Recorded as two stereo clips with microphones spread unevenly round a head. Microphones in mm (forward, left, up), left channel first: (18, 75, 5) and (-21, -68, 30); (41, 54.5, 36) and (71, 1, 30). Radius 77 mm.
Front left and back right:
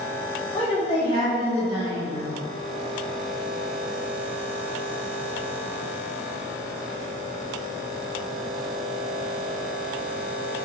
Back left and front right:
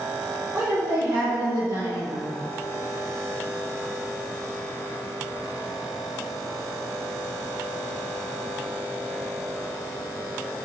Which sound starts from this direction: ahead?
A woman speaking, at 0.5 s.